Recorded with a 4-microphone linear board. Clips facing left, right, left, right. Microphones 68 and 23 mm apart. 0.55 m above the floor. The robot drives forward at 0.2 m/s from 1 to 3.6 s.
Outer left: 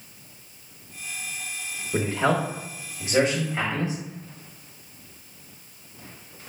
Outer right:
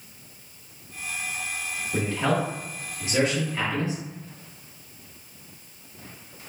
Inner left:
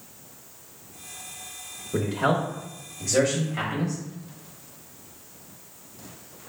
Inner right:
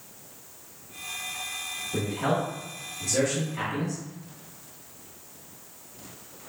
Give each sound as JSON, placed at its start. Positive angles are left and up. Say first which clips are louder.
{"t": 1.9, "sound": "a man speaking", "louder": "outer left 2 dB, inner left 4 dB", "side_deg": 20, "distance_m": 0.8}